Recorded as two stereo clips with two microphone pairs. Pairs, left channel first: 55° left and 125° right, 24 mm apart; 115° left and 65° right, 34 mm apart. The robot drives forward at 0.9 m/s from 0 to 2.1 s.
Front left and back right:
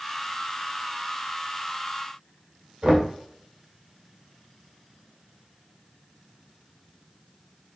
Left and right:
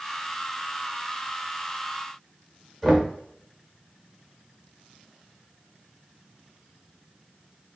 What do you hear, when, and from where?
2.8 s knocking: 165° right, 1.3 m